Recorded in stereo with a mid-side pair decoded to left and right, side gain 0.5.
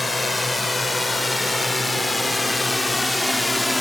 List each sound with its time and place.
0.0 s a drone: 15° left; by 3.8 s 10° left